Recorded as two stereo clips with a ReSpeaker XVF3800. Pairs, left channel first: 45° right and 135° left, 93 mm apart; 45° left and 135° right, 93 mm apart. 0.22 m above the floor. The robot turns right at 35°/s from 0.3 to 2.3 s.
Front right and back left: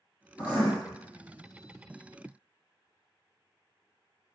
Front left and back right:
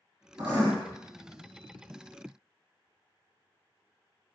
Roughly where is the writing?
Behind right.